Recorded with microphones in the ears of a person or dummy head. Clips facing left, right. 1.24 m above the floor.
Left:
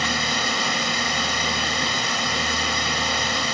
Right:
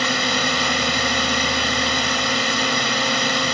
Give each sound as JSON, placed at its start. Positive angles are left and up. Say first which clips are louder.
{"t": 0.0, "sound": "a drone", "louder": "right 4 dB", "side_deg": -65}